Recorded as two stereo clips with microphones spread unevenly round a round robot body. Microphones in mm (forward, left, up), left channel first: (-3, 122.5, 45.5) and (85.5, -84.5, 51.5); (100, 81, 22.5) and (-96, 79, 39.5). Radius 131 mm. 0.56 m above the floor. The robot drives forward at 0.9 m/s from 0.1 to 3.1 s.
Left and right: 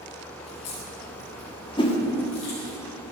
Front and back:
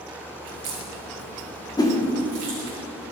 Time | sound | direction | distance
0.4 | a crack | straight behind | 2 m
1.8 | a whoosh | 55° left | 1.5 m